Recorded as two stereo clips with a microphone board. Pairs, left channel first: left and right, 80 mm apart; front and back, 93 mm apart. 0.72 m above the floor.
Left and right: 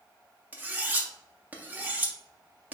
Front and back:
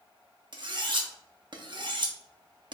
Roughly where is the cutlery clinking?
Behind right.